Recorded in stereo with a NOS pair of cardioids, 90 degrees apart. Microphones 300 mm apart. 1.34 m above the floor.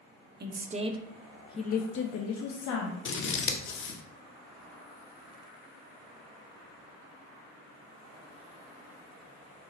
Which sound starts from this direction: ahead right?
A woman speaking, at 0.4 s.